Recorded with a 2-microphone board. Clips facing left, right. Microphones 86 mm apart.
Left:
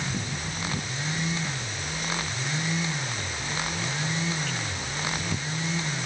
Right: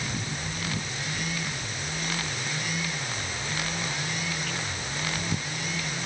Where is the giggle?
I don't hear a giggle.